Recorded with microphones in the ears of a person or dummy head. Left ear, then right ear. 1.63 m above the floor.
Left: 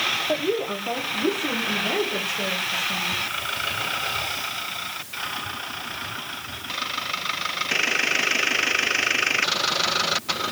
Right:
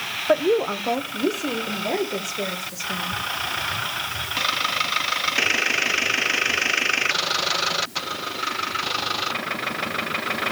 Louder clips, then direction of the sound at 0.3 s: Right 5 dB; 45° right (ahead or behind).